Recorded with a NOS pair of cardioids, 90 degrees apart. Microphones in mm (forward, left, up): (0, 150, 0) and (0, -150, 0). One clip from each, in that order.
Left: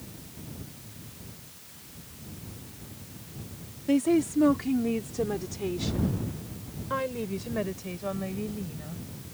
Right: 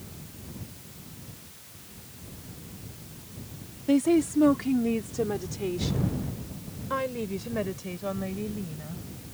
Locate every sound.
3.9 s a woman speaking: 10° right; by 9.0 s straight ahead